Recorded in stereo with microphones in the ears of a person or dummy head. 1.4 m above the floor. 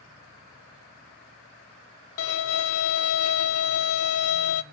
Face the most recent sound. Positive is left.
turn(degrees=70)  # may be behind; listen again after turning